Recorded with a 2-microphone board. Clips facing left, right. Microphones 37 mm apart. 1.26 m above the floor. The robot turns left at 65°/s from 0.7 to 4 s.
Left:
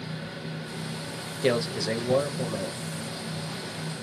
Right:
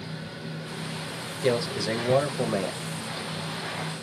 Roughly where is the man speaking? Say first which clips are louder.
Even; ahead.